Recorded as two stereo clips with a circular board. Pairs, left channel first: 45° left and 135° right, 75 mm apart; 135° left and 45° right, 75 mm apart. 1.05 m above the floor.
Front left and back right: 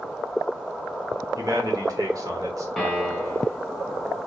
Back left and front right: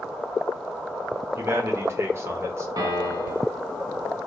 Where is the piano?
40° right, 1.0 m.